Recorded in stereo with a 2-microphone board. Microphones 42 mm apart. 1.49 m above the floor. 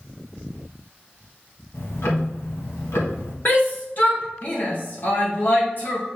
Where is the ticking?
80° left, 1.5 m.